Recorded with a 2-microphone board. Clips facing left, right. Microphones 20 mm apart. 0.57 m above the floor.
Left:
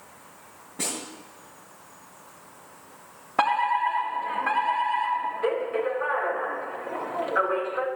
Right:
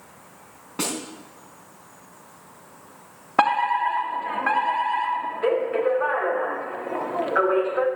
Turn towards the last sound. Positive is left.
turn(degrees=-25)  # may be behind; listen again after turning